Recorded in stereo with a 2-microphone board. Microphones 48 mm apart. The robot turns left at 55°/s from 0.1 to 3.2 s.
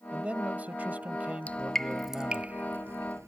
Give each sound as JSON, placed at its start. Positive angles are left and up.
{"t": 0.1, "sound": "a man speaking", "azimuth_deg": -50}
{"t": 1.5, "sound": "dripping", "side_deg": 30}